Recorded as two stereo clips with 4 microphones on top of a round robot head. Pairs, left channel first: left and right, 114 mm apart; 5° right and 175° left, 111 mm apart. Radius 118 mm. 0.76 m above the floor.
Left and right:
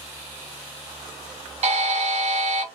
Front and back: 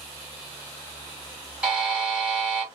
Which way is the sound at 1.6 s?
100° right.